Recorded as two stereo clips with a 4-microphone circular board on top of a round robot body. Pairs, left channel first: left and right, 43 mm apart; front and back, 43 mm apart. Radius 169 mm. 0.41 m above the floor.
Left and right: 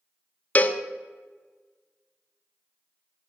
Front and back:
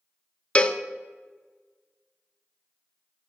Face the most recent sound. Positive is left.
turn(degrees=55)